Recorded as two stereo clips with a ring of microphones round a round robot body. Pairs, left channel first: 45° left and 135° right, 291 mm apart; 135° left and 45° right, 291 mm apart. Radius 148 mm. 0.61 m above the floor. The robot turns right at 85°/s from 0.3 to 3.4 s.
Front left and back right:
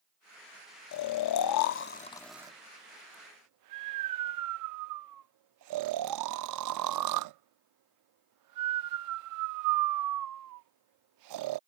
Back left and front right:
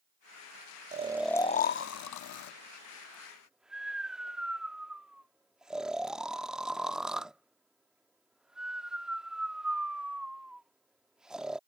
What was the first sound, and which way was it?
Snoring, 15° left.